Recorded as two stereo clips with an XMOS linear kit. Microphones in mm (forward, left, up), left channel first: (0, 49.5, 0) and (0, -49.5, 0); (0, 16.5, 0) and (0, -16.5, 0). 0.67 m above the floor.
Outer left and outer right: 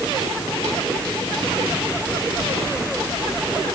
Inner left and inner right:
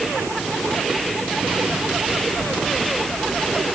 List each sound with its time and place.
Only background noise.